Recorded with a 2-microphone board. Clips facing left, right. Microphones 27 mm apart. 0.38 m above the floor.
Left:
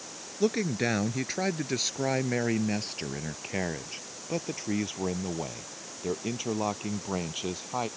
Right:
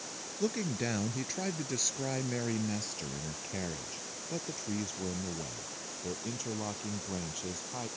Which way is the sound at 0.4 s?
30° left (ahead or behind).